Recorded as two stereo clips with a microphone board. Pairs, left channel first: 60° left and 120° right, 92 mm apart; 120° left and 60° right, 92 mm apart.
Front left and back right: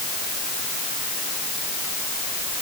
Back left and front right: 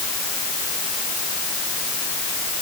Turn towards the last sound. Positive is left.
No sound to turn to.